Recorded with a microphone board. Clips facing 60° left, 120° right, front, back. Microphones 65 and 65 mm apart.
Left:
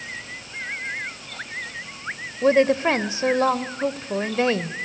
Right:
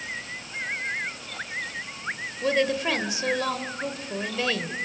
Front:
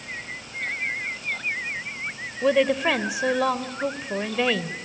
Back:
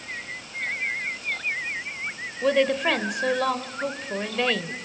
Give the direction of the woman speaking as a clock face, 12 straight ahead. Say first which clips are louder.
Left 7 dB, front 1 dB; 9 o'clock.